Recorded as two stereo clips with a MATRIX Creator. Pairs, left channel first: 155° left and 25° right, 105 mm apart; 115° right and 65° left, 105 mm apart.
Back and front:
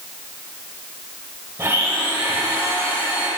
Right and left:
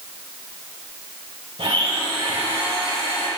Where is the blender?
45° left, 2.5 m.